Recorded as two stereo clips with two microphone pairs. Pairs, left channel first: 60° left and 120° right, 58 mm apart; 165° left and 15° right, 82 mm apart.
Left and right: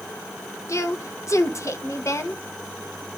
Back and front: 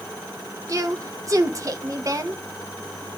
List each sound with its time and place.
0.7 s a woman speaking: 30° left, 1.1 m